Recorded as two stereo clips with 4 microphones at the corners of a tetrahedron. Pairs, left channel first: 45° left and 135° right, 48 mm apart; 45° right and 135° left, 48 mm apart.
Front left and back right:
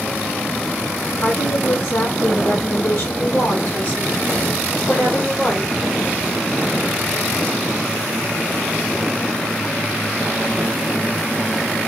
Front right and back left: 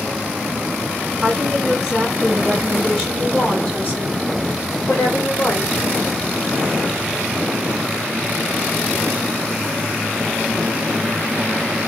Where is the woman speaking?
50° left, 2.0 m; by 5.7 s 30° right, 2.5 m.